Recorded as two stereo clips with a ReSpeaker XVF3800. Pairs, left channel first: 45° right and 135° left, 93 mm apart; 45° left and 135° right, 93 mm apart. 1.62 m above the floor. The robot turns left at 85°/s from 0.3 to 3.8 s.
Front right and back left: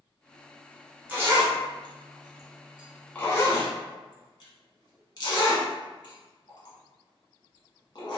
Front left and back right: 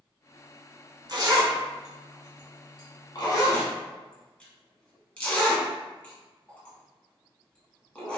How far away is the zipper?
About 1.2 m.